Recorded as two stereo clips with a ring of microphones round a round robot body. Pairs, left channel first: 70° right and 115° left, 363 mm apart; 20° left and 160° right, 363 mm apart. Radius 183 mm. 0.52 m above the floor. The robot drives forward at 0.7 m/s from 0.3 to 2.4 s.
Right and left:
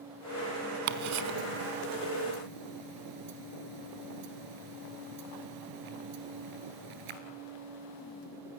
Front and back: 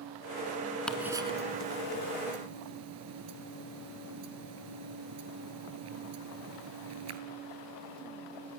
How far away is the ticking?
About 0.9 m.